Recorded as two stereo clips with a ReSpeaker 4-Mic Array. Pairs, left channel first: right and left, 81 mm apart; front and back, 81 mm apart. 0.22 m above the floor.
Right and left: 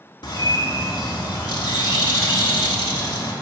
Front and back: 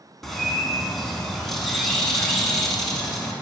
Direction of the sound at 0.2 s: 85° right.